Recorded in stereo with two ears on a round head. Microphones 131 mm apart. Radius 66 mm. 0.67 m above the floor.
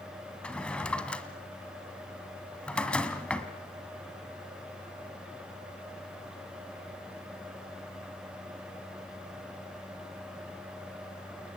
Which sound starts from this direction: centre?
A drawer, at 0.4 s.